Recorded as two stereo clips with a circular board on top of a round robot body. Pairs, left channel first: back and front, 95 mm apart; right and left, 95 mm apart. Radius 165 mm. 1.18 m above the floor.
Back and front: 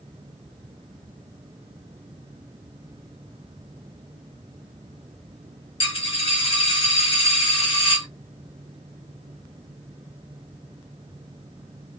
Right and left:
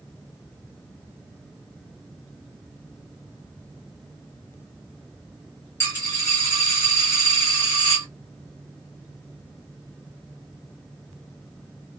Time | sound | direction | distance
5.8 | a dropped coin | 155° right | 1.5 m